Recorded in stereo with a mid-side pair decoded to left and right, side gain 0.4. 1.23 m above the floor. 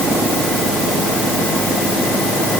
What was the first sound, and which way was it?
Only background noise.